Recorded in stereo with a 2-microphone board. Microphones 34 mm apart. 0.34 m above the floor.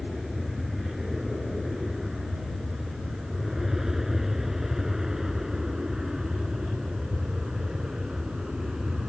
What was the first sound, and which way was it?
An aircraft, 5° right (ahead or behind).